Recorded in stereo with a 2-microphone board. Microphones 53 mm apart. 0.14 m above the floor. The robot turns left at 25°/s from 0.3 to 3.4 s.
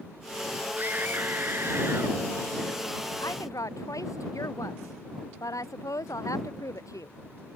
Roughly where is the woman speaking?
Left.